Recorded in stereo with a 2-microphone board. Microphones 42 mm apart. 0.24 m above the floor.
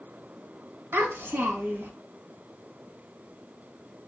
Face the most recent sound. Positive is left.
turn(degrees=-60)  # may be behind; listen again after turning